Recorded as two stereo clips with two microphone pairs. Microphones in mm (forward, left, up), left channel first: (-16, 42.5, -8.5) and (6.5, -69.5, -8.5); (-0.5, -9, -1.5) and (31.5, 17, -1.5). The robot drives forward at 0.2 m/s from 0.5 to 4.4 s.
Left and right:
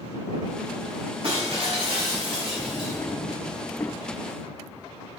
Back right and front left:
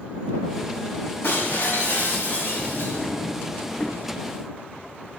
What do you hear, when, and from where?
1.2 s breaking glass: 115° right, 6.5 m; by 3.1 s 120° right, 6.5 m
2.6 s a drawer: 155° left, 1.0 m; by 3.9 s 160° left, 1.2 m